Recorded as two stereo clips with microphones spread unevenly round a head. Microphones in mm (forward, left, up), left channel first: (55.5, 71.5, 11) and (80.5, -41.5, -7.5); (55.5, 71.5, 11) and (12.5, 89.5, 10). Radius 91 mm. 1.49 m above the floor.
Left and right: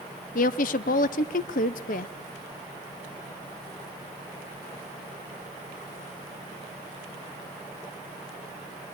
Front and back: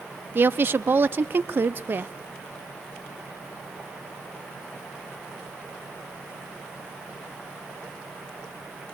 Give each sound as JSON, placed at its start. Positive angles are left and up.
{"t": 0.3, "sound": "a woman speaking", "azimuth_deg": 115, "distance_m": 0.7}